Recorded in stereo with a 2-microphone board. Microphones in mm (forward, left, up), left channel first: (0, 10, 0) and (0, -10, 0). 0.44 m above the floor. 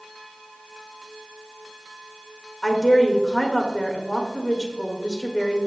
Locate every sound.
2.6 s a woman speaking: 30° left (ahead or behind), 1.8 m